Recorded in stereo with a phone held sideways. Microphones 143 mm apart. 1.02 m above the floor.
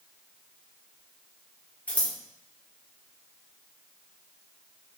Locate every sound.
1.9 s scissors: 10° left (ahead or behind), 2 m